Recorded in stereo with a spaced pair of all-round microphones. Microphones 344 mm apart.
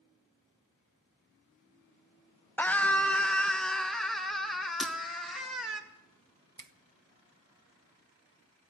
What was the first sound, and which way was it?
A scream, 5° left (ahead or behind).